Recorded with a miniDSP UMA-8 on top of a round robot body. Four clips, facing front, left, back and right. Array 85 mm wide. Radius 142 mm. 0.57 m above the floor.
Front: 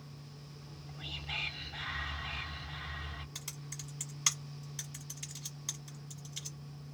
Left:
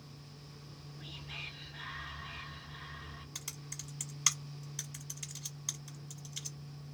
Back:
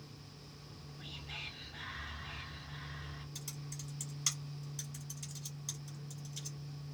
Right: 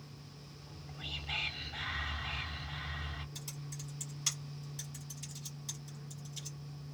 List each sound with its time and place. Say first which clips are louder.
0.6 s whispering: right 4 dB, front 3 dB; 50° right, 1.6 m
3.4 s typing on a keyboard: right 3 dB, even; 50° left, 1.0 m